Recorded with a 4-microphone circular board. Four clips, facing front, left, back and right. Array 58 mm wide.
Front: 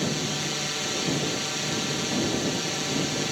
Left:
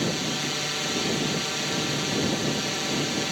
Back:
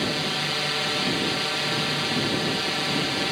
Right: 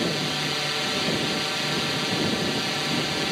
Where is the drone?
155° right.